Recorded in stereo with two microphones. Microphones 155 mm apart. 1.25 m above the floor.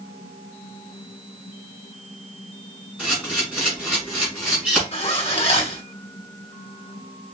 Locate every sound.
3.0 s a camera shutter: 5° right (ahead or behind), 3.5 m
4.9 s a zipper: 40° left (ahead or behind), 1.1 m